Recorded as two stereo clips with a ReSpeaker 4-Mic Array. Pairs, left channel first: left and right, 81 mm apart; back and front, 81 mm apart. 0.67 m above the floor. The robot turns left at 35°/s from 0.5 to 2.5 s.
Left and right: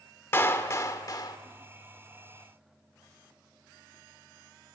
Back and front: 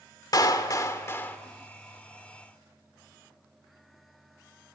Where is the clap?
145° left, 1.8 m; by 1.4 s 115° left, 1.8 m.